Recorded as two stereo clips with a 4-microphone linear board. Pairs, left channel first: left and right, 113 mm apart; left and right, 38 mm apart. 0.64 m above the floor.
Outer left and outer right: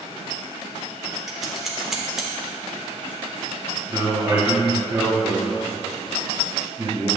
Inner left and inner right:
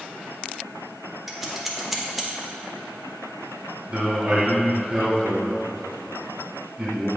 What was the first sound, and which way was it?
Scissors, 5° right (ahead or behind).